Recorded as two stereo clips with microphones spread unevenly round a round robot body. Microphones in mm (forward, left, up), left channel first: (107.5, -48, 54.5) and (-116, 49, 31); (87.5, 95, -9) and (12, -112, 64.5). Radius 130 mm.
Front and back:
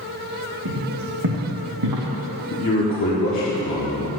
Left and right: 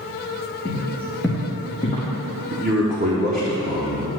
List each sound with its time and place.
0.7 s footsteps: straight behind, 2 m; by 2.1 s 140° left, 1.6 m
2.5 s a man speaking: 50° right, 1.2 m